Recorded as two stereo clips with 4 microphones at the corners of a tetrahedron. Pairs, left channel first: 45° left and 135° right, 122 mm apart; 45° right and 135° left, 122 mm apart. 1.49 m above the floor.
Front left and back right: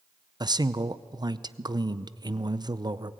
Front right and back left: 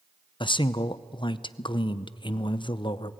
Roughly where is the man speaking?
Right.